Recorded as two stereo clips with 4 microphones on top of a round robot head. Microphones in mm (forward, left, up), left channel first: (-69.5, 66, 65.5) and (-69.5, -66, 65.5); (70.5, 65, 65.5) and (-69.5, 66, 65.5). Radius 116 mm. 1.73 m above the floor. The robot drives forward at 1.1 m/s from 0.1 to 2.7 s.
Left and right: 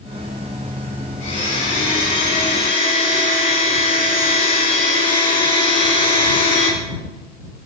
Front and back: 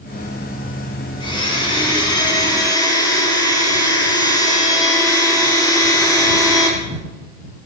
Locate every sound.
1.2 s a blender: 50° left, 8.5 m; by 6.7 s 60° left, 7.5 m